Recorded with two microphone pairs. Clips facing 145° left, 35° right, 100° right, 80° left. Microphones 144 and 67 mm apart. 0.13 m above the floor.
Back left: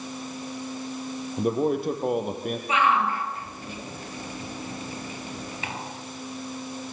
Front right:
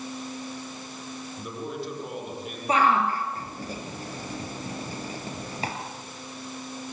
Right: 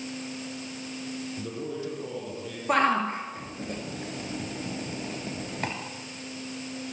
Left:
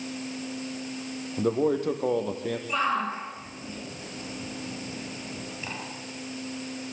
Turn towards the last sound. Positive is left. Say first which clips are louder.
# front right 2 dB, right 5 dB
turn(degrees=-80)